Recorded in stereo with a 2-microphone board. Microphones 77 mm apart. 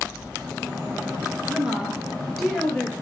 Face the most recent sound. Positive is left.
turn(degrees=10)  # may be behind; listen again after turning